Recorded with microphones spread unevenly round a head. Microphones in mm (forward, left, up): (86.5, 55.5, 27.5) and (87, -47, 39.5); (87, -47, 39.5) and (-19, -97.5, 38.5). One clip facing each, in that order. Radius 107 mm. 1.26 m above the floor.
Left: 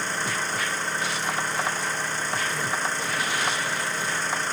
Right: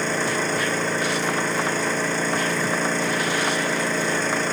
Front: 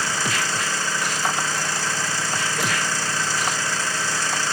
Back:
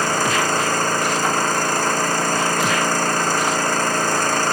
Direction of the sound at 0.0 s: 115° right.